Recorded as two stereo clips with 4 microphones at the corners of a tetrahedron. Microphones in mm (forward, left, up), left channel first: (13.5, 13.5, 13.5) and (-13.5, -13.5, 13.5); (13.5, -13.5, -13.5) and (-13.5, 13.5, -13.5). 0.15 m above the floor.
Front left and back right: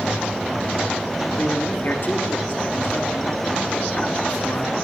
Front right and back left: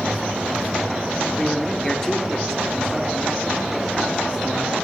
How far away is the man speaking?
About 2.5 m.